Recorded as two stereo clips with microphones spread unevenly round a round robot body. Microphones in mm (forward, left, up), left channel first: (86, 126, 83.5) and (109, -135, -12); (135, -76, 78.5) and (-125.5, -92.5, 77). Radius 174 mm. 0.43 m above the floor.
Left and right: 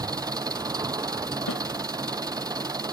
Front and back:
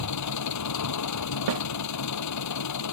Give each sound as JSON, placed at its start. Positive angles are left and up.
{"t": 0.0, "sound": "an engine running", "azimuth_deg": -5}
{"t": 1.5, "sound": "a snare drum", "azimuth_deg": 150}